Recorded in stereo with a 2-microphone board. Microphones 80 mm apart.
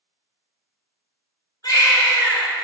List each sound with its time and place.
1.6 s a baby crying: 55° left (ahead or behind), 1.0 m